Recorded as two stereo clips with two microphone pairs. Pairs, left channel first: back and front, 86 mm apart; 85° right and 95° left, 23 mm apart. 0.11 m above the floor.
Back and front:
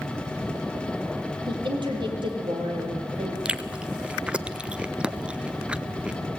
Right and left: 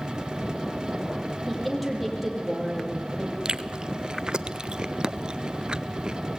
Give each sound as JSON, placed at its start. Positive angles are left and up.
{"t": 1.5, "sound": "a woman speaking", "azimuth_deg": 5, "distance_m": 3.5}
{"t": 3.5, "sound": "chewing", "azimuth_deg": 70, "distance_m": 0.6}